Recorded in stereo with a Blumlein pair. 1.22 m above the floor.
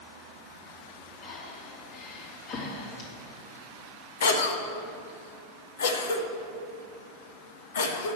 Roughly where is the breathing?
Ahead left.